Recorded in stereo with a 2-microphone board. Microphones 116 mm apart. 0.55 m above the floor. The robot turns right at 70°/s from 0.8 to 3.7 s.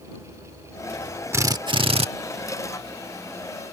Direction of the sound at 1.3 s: 155° right.